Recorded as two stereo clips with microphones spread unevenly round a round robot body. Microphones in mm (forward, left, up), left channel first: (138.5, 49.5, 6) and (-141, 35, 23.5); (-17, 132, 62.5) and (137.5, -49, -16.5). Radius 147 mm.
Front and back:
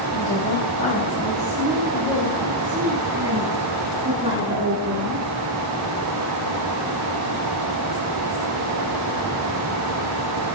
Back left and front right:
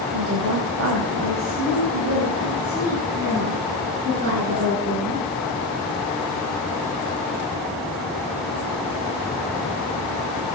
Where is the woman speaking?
50° right, 3.5 m; by 5.2 s 110° right, 7 m.